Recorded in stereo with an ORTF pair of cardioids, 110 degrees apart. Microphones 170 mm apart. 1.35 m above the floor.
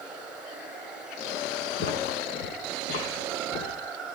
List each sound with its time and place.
0.0 s running water: 5° right, 6 m
1.8 s footsteps: 60° left, 7 m